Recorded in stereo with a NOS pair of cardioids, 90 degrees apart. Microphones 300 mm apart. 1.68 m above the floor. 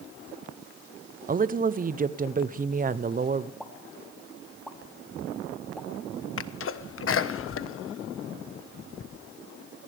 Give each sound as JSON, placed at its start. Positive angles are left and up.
{"t": 1.3, "sound": "a woman speaking", "azimuth_deg": -30, "distance_m": 0.9}
{"t": 3.6, "sound": "a pop", "azimuth_deg": 0, "distance_m": 3.0}
{"t": 6.4, "sound": "a sneeze", "azimuth_deg": 45, "distance_m": 1.4}